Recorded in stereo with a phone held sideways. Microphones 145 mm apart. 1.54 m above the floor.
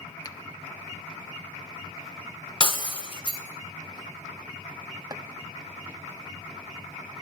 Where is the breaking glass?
40° left (ahead or behind), 3 m.